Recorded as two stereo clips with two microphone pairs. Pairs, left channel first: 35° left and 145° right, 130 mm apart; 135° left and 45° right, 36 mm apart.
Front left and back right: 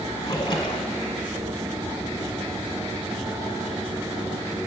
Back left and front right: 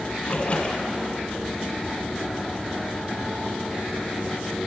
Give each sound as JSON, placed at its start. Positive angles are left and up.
{"t": 0.2, "sound": "a splash", "azimuth_deg": 90, "distance_m": 1.0}